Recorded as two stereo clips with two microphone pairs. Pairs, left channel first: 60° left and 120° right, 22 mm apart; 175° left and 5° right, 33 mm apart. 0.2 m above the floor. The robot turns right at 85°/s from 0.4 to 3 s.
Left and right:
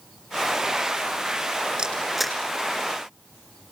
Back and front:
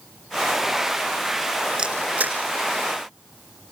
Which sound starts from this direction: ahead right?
A camera shutter, at 1.8 s.